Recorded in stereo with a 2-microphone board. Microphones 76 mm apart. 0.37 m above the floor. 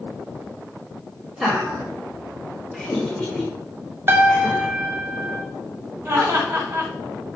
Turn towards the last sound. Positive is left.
turn(degrees=-40)  # may be behind; listen again after turning